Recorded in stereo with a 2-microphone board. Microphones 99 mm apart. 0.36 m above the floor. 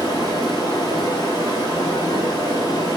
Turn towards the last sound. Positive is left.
turn(degrees=40)  # may be behind; listen again after turning